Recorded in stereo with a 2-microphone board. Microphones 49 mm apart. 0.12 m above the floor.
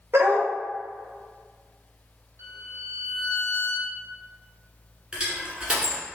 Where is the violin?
65° right (ahead or behind), 1.1 m.